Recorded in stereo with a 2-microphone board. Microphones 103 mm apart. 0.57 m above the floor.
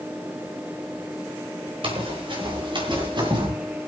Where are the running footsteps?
60° right (ahead or behind), 5 m; by 3.5 s 50° right (ahead or behind), 5 m.